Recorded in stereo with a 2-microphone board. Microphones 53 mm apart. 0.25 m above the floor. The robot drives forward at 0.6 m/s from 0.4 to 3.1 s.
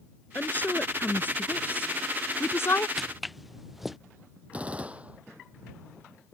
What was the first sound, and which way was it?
A woman speaking, 30° left (ahead or behind).